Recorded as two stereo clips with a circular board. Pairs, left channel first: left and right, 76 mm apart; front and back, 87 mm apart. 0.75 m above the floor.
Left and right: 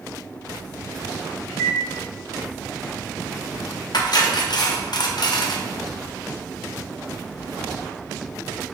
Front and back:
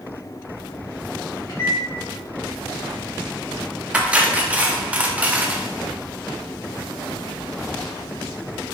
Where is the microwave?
40° left, 1.8 m.